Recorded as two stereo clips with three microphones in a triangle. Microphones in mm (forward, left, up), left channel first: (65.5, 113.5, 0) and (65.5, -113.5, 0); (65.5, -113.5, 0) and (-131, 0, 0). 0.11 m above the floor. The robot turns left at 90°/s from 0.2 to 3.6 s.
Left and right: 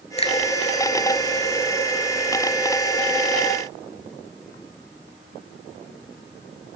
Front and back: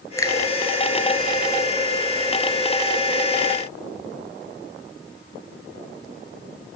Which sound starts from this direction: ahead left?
A finger snap, at 0.2 s.